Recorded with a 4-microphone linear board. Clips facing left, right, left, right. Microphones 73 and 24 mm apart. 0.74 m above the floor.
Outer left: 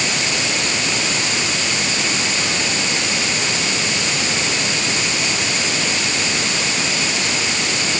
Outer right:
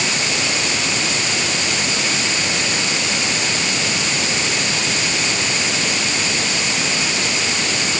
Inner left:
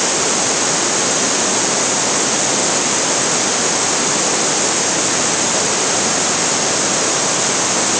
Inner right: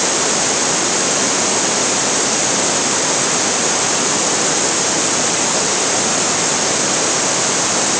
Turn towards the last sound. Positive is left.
No sound to turn to.